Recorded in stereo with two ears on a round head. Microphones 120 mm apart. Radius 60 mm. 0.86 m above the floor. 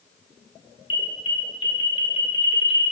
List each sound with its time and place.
0.9 s an alarm: 35° left (ahead or behind), 1.9 m